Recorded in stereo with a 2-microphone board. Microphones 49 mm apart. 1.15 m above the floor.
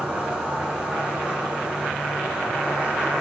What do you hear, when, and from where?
0.0 s an insect: 25° right (ahead or behind), 0.9 m